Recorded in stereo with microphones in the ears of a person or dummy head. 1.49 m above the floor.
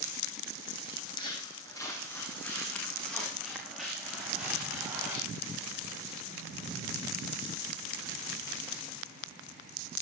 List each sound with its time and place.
0.9 s footsteps: 30° left (ahead or behind), 4.5 m; by 5.2 s 10° right (ahead or behind), 8.5 m